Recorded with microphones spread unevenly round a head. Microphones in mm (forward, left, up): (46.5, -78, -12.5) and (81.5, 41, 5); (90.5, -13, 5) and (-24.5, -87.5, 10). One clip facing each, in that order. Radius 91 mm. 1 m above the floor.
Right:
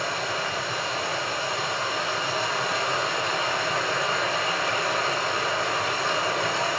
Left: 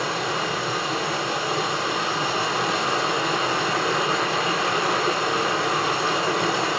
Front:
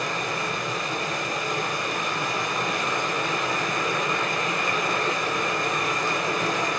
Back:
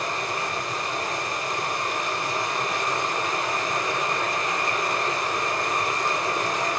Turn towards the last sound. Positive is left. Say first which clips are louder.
# left 3 dB, even
turn(degrees=65)